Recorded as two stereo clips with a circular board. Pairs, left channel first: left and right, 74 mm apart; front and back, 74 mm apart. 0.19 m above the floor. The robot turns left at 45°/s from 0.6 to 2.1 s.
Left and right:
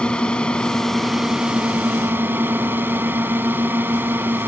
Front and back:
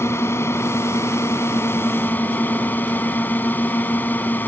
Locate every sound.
0.0 s a drone: 20° left; by 4.5 s 50° right